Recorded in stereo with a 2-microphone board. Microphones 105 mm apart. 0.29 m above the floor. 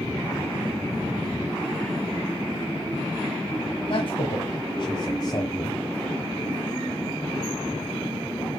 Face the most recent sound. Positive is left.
turn(degrees=30)  # may be behind; listen again after turning